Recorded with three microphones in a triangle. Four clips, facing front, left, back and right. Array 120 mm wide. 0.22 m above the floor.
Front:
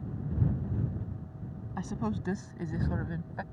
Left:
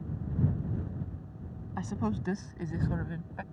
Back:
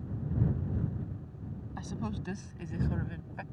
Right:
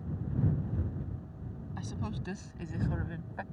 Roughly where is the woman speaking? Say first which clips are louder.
Left 8 dB, front 5 dB; ahead left.